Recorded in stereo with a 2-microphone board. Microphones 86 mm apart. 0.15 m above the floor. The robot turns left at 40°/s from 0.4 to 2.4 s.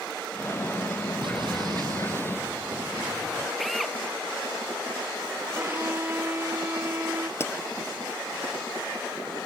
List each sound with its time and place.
1.2 s an explosion: 110° right; by 3.5 s 155° right
3.6 s a drill: centre (ahead or behind)
5.5 s a violin: 25° right (ahead or behind)
7.4 s a pop: 30° left (ahead or behind)